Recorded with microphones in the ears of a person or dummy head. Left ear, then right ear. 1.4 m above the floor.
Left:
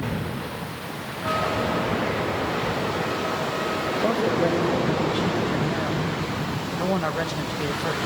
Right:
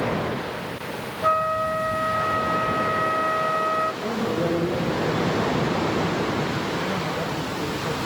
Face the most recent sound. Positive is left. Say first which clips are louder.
# left 1 dB
turn(degrees=55)  # may be behind; listen again after turning